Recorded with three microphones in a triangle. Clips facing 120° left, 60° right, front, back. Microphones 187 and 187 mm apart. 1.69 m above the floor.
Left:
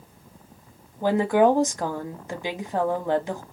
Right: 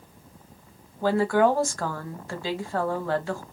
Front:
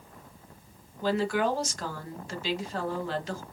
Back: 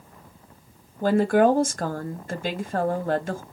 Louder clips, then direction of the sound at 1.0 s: Left 2 dB, back 8 dB; 175° right.